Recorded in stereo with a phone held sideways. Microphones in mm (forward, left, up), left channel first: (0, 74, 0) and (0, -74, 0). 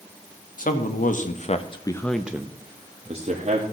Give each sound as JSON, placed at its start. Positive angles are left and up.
{"t": 0.6, "sound": "a man speaking", "side_deg": 70, "distance_m": 1.4}